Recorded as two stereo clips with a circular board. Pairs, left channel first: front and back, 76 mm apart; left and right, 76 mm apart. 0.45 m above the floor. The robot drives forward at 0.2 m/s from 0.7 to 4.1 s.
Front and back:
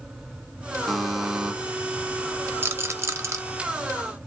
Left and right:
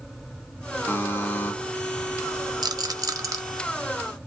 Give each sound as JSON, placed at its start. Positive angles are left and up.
{"t": 0.9, "sound": "a buzzer", "azimuth_deg": 85, "distance_m": 0.6}
{"t": 2.6, "sound": "a rattle", "azimuth_deg": -120, "distance_m": 0.5}